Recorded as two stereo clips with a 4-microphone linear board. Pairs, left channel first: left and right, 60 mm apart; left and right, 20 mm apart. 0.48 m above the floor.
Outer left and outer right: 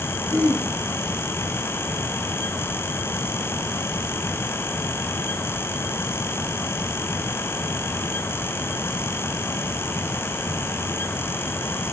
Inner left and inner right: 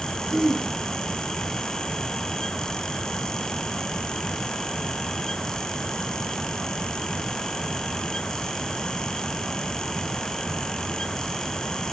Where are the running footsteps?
No running footsteps in this recording.